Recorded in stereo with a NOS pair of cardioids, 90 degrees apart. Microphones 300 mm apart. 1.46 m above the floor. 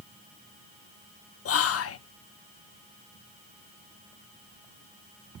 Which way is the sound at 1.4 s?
50° left.